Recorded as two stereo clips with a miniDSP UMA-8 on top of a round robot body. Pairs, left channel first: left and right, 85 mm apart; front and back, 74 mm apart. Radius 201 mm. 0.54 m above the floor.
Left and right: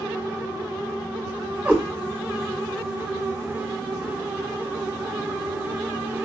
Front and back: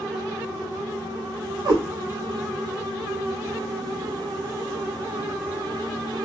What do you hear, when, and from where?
1.6 s a cat meowing: 160° right, 2.5 m